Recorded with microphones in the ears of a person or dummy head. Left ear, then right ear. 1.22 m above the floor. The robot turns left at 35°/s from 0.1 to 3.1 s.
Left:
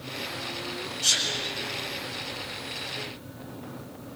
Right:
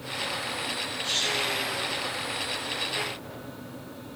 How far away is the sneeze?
About 8.5 m.